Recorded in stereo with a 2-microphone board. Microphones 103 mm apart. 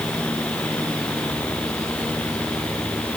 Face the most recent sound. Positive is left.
No sound to turn to.